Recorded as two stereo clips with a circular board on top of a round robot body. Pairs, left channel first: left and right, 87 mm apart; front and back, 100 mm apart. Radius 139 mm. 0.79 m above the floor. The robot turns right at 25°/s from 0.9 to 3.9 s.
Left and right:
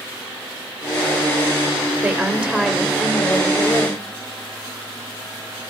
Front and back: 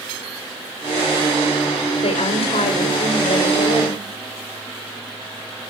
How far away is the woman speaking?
About 3.5 m.